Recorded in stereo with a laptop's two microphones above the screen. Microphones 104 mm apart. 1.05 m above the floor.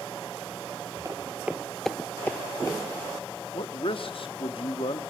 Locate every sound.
1.1 s footsteps: 30° right (ahead or behind), 1.2 m; by 2.8 s 30° left (ahead or behind), 1.6 m
3.5 s a man speaking: 60° left (ahead or behind), 1.6 m